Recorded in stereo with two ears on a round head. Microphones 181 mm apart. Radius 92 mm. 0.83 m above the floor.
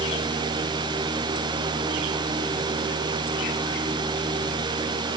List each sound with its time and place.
Only background noise.